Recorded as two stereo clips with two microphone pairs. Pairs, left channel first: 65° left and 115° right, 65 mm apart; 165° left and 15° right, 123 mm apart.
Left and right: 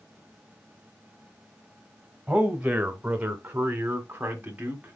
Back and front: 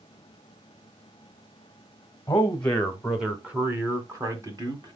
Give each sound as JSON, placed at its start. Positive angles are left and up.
{"t": 2.3, "sound": "a man speaking", "azimuth_deg": -170, "distance_m": 1.2}